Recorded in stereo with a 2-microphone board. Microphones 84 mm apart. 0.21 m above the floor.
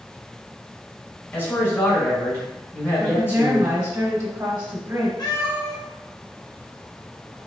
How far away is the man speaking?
About 2 m.